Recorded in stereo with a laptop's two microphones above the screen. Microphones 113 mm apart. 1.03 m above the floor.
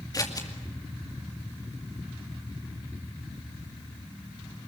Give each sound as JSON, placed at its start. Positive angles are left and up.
{"t": 0.1, "sound": "scissors", "side_deg": 35, "distance_m": 2.5}